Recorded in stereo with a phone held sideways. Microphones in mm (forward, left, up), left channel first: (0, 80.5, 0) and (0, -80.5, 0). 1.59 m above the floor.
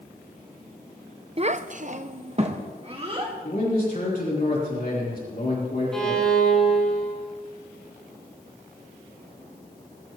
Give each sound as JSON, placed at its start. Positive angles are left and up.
{"t": 1.4, "sound": "a child speaking", "side_deg": -35, "distance_m": 0.6}
{"t": 3.4, "sound": "a man speaking", "side_deg": 60, "distance_m": 3.5}
{"t": 5.9, "sound": "a violin", "side_deg": 5, "distance_m": 2.5}